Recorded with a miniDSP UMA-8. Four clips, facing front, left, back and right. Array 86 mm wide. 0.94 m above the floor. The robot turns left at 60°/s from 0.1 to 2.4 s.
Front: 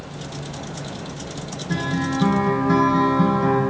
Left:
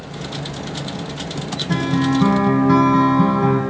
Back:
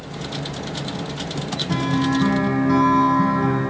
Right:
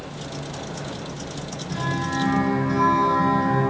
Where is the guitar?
130° left, 2.5 m; by 3.6 s 90° left, 2.5 m.